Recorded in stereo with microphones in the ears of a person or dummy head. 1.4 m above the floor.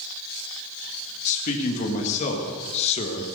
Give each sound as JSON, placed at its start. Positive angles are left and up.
{"t": 1.2, "sound": "a man speaking", "side_deg": 45, "distance_m": 2.5}